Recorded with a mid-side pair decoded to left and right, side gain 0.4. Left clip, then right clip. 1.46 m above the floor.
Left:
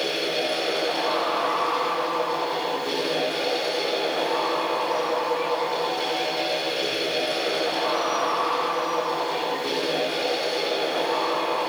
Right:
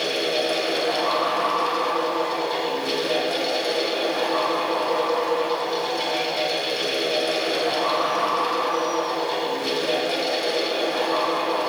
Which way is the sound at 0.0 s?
50° right.